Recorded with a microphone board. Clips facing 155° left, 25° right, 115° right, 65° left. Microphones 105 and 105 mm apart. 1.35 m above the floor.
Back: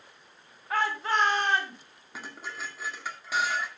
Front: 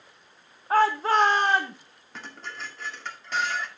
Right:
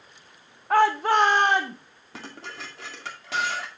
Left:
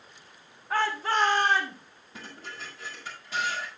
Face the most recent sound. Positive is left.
turn(degrees=-120)